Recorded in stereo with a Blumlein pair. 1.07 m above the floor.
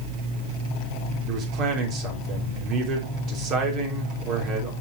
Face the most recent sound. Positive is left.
turn(degrees=-35)